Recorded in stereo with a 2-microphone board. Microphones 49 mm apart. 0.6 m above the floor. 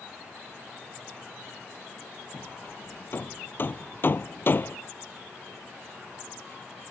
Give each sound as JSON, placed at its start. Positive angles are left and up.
{"t": 2.3, "sound": "hammering", "side_deg": 40}